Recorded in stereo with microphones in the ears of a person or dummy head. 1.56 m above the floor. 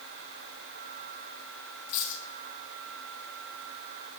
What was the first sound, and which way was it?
A dropped coin, 65° left (ahead or behind).